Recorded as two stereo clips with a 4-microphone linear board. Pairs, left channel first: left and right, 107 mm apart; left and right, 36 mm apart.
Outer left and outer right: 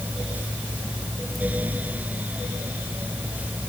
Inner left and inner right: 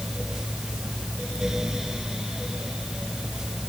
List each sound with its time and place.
Only background noise.